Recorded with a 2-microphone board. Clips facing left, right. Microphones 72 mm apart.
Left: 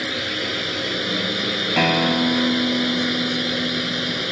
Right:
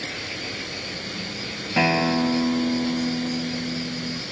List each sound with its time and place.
0.0 s a drone: 80° left
1.8 s a guitar: 5° left (ahead or behind)